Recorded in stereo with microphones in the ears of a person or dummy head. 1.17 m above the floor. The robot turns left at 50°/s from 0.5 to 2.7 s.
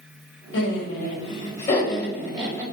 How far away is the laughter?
About 3 m.